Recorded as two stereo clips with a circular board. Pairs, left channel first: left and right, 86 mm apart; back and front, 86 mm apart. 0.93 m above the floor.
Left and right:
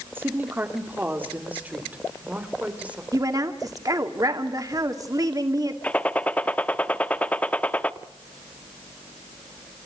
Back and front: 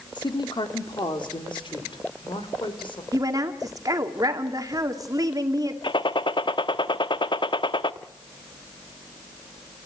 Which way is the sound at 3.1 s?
45° right.